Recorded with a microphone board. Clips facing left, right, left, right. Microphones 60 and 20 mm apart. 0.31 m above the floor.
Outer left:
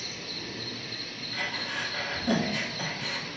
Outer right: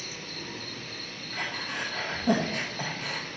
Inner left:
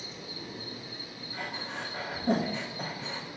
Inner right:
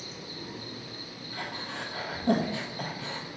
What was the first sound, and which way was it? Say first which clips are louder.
An insect: even, even; 20° right (ahead or behind).